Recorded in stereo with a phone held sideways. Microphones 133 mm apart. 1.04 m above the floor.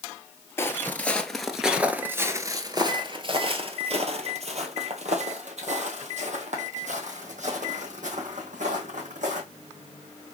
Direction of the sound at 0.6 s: 20° left (ahead or behind).